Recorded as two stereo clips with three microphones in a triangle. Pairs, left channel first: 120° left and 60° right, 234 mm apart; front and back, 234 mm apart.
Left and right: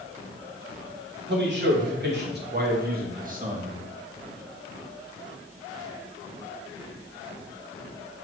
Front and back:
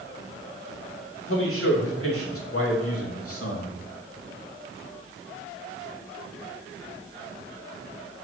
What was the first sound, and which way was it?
A man speaking, 20° right.